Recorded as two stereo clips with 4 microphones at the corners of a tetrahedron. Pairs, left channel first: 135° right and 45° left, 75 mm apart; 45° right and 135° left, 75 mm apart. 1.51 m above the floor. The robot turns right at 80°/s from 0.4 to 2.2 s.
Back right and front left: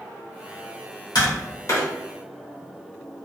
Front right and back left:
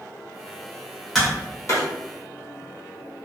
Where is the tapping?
135° right, 1.0 m; by 1.9 s 75° right, 1.0 m.